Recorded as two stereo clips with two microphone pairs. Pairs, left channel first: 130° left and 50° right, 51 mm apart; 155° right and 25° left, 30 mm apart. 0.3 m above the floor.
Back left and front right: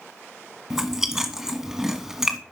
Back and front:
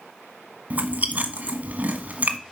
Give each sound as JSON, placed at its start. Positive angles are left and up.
{"t": 0.7, "sound": "chewing", "azimuth_deg": 35, "distance_m": 1.4}